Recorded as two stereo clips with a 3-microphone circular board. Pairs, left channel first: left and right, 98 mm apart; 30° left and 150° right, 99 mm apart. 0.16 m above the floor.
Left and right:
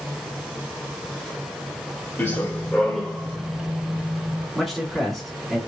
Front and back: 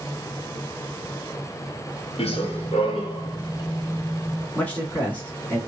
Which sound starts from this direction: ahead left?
Running footsteps, at 2.2 s.